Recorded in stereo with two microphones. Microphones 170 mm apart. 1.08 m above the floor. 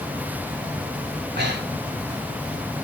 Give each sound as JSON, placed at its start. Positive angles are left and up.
{"t": 1.2, "sound": "breathing", "side_deg": -85, "distance_m": 2.5}